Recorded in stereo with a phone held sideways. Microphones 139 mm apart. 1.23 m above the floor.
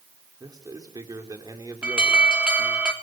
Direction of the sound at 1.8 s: 10° right (ahead or behind).